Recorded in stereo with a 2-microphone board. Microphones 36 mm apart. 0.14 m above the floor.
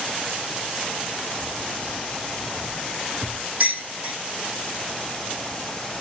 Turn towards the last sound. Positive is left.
turn(degrees=-45)  # may be behind; listen again after turning